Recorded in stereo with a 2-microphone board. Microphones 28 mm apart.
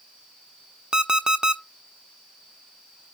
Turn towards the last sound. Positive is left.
turn(degrees=-30)  # may be behind; listen again after turning